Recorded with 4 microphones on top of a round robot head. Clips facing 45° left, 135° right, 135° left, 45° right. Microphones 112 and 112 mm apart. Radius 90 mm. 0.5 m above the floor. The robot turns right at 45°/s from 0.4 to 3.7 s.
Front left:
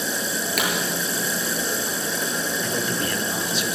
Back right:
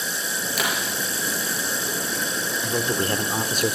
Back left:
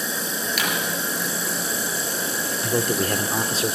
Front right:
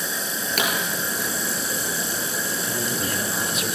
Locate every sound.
0.6 s a pop: 5° left, 6.5 m; by 0.7 s 10° left, 6.5 m
2.6 s a man speaking: 145° left, 2 m; by 3.7 s 165° right, 2 m